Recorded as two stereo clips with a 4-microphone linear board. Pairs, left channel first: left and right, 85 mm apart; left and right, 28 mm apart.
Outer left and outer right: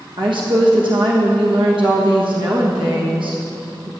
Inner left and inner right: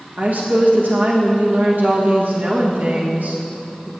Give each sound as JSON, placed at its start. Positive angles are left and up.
{"t": 0.2, "sound": "a woman speaking", "side_deg": -75, "distance_m": 1.2}